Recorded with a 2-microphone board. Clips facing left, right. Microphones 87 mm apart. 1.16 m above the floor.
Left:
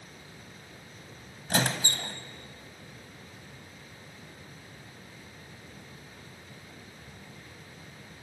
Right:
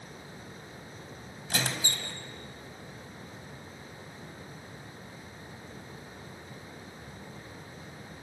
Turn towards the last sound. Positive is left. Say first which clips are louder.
# left 4 dB
turn(degrees=50)  # may be behind; listen again after turning